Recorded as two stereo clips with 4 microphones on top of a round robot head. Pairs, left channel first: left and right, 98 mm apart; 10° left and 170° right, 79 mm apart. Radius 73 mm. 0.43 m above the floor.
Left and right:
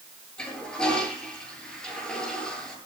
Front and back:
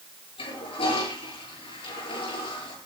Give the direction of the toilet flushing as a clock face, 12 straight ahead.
12 o'clock.